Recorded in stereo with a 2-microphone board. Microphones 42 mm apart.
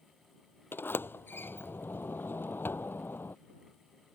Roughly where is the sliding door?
Left.